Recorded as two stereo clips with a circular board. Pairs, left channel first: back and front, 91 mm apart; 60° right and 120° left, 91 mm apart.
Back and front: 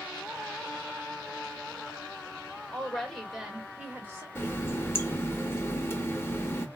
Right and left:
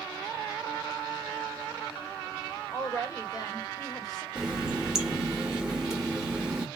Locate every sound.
2.7 s a woman speaking: 110° right, 1.5 m; by 4.2 s 45° right, 1.5 m
4.3 s a running tap: 170° right, 0.7 m